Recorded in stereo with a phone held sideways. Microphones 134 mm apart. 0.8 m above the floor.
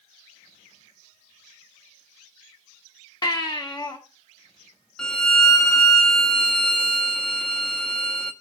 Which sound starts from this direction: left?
A baby crying, at 3.2 s.